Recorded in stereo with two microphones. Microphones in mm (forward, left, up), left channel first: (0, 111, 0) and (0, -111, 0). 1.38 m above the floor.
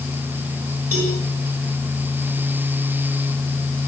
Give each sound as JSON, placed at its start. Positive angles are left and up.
{"t": 0.9, "sound": "a cowbell", "side_deg": -70, "distance_m": 8.0}